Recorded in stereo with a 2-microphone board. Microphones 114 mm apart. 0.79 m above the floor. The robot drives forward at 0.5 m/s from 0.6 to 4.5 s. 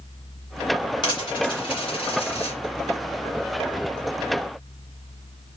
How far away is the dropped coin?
About 2.5 m.